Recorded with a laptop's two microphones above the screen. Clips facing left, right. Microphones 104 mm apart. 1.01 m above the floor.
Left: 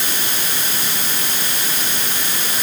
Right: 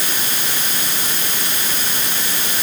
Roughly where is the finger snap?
I don't hear a finger snap.